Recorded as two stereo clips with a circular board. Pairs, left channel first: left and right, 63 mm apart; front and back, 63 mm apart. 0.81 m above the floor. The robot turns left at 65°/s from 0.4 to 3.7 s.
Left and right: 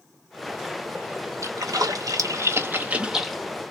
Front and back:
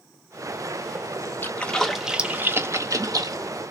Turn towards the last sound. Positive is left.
turn(degrees=155)